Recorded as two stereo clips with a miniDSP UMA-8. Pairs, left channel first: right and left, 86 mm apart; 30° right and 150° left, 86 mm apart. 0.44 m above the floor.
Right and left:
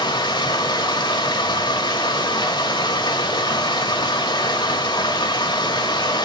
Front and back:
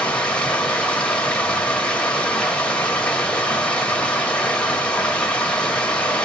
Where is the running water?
105° right, 1.1 m.